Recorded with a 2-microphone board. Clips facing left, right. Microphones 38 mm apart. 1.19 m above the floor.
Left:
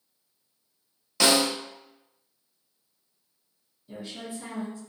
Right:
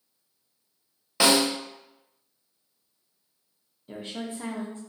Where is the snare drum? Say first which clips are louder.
Right 1 dB; 20° right (ahead or behind), 1.0 m.